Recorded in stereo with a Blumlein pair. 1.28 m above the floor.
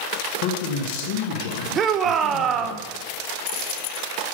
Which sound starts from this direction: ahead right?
A shout, at 1.8 s.